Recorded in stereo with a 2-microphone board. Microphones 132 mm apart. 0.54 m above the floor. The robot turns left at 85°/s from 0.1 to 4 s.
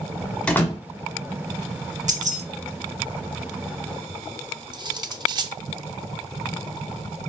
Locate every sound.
0.5 s a door slam: 5° left (ahead or behind), 1.6 m; by 0.8 s 30° left (ahead or behind), 1.6 m
2.1 s keys jangling: 65° right (ahead or behind), 0.9 m; by 2.4 s 55° right (ahead or behind), 0.9 m
4.7 s cutlery clinking: 30° right (ahead or behind), 0.6 m